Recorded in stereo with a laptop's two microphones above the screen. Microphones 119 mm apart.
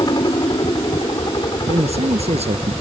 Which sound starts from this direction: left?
A helicopter, at 0.0 s.